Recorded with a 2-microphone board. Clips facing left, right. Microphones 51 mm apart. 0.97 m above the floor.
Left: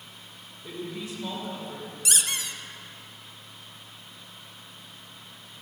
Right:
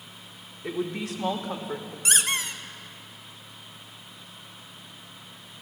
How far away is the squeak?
About 0.8 m.